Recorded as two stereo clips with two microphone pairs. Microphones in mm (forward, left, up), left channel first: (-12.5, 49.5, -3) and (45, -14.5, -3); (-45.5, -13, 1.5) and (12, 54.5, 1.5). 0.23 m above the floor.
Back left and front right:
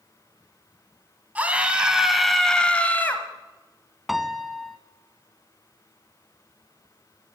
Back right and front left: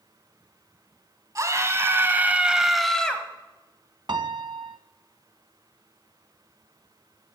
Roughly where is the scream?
Ahead.